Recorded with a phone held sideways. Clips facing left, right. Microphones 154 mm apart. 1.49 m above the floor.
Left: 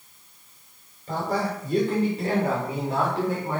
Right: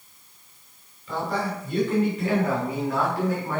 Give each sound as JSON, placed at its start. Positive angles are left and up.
{"t": 1.1, "sound": "a man speaking", "side_deg": 45, "distance_m": 5.5}